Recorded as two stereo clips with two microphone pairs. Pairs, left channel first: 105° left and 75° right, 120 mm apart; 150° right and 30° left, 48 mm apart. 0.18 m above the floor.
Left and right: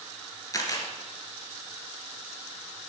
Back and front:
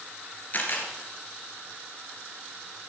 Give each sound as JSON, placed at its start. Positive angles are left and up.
{"t": 0.5, "sound": "a camera shutter", "azimuth_deg": 165, "distance_m": 2.0}